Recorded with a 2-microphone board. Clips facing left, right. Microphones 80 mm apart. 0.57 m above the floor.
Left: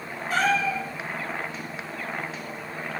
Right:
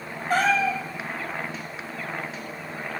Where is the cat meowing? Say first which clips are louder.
Right 2 dB; 45° right (ahead or behind), 2 m.